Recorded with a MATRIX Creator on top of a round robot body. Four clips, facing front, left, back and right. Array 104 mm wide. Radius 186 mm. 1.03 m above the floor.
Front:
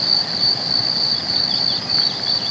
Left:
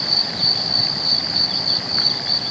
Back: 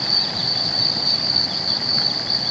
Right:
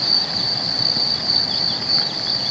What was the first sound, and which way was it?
Only background noise.